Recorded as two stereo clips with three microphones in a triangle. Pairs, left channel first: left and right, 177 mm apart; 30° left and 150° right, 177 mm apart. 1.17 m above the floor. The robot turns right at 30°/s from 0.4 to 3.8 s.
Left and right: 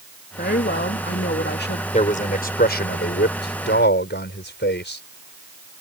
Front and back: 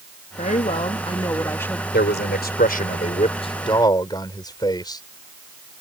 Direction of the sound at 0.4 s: 70° left.